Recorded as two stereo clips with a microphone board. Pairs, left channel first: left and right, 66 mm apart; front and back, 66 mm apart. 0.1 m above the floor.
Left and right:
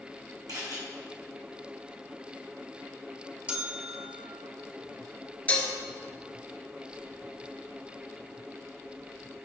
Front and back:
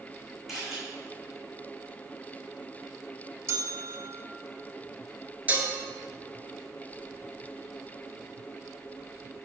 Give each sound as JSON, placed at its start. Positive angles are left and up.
{"t": 0.5, "sound": "a camera shutter", "azimuth_deg": -95, "distance_m": 2.5}
{"t": 3.5, "sound": "a bell", "azimuth_deg": -155, "distance_m": 0.8}
{"t": 5.5, "sound": "dishes clattering", "azimuth_deg": 135, "distance_m": 1.0}